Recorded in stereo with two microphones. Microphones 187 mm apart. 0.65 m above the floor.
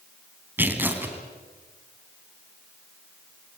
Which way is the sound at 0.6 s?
10° right (ahead or behind).